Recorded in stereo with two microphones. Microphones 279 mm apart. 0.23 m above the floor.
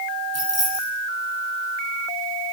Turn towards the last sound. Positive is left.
turn(degrees=60)  # may be behind; listen again after turning